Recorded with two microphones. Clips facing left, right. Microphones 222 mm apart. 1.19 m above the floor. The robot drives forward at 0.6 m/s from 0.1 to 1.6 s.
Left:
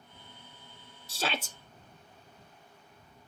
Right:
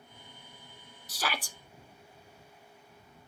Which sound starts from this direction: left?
A shout, at 1.1 s.